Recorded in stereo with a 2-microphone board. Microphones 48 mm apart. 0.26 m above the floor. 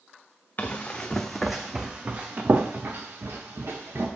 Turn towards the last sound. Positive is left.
turn(degrees=-65)  # may be behind; listen again after turning